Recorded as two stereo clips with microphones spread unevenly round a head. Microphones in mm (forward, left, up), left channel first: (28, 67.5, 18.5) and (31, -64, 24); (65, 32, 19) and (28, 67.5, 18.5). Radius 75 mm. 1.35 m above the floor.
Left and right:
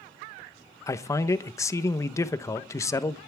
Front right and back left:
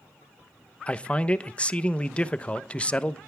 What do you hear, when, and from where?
0.9 s a man speaking: 25° left, 1.0 m